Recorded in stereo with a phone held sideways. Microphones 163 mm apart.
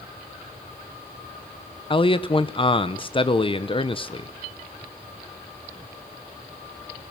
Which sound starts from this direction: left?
A man speaking, at 1.9 s.